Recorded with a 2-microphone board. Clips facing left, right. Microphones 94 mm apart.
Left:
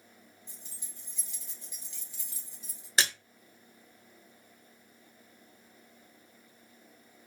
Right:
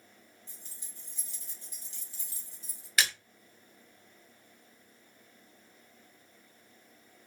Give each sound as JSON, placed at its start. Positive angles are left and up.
{"t": 0.5, "sound": "keys jangling", "side_deg": -35, "distance_m": 1.4}
{"t": 3.0, "sound": "a splash", "side_deg": 30, "distance_m": 0.8}